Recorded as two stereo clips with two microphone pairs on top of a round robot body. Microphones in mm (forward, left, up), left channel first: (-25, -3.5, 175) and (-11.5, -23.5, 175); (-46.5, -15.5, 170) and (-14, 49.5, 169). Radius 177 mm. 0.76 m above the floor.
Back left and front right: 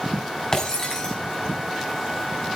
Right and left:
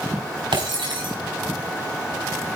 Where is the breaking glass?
60° left, 5 m.